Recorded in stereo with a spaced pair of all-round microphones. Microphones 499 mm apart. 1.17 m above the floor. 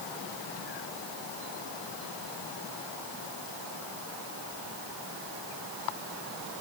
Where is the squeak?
I don't hear a squeak.